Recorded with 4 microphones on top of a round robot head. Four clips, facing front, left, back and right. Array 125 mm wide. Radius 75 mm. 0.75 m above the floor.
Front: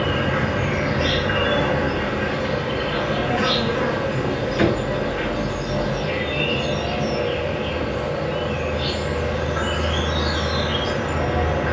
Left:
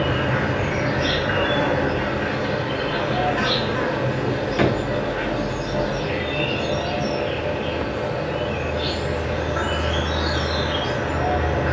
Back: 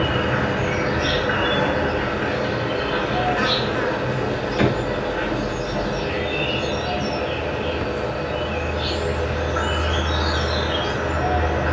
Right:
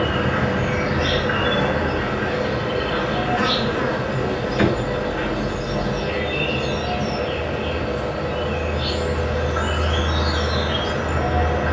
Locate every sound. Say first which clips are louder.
0.0 s an insect: right 1 dB, even; 135° left, 1.4 m
4.6 s a drawer: right 1 dB, front 1 dB; 100° left, 1.0 m